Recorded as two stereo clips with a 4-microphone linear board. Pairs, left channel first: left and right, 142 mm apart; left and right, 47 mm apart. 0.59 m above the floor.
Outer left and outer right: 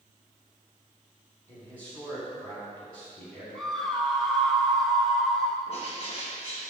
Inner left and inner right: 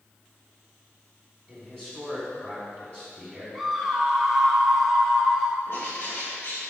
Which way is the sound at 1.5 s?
10° left (ahead or behind).